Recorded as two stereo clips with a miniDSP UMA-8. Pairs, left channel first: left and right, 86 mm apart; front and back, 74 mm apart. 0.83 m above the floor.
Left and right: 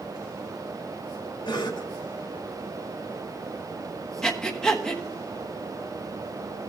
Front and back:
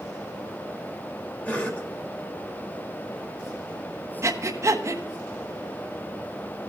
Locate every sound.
1.4 s a cough: 70° left, 2.0 m
4.2 s breathing: 170° left, 0.9 m